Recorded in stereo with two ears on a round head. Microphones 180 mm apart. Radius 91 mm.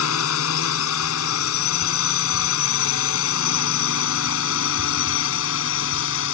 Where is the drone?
75° left (ahead or behind); by 6.3 s 65° left (ahead or behind).